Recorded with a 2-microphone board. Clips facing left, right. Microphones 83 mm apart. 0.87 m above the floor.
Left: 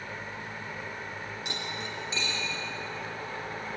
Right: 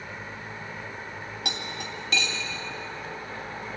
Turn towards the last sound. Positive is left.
turn(degrees=-75)  # may be behind; listen again after turning